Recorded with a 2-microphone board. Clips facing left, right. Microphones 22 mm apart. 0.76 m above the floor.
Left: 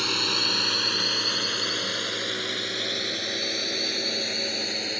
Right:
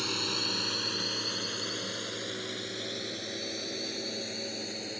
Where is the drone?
25° left (ahead or behind); by 5.0 s 40° left (ahead or behind).